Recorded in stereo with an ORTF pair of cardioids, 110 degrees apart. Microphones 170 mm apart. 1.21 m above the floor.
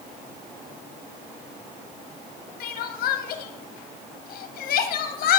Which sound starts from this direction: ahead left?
Crying, at 2.6 s.